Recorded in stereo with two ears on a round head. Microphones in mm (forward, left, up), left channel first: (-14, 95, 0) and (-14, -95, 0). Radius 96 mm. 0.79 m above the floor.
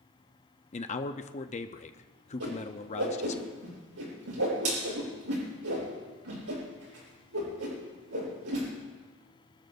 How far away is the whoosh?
About 9 m.